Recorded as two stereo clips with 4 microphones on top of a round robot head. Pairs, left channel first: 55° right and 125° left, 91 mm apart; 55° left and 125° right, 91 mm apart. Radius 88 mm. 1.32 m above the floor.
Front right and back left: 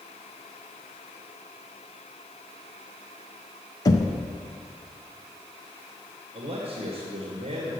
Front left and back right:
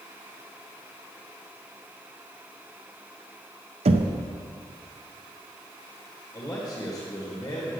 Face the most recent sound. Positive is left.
turn(degrees=135)